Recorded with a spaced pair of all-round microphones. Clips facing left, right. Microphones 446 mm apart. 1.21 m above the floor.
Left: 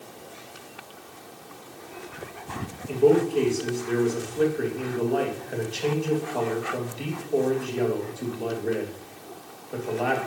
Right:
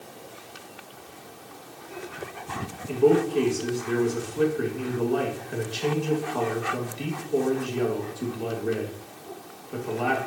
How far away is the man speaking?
About 1.5 m.